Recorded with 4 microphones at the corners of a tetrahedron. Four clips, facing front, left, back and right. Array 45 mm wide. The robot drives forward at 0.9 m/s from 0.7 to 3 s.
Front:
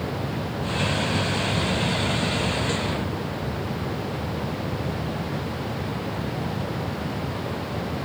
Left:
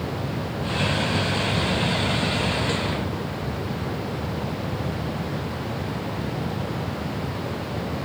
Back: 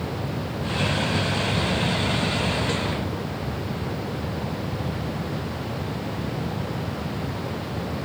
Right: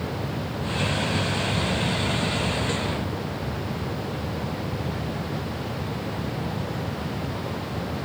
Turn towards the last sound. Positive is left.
No sound to turn to.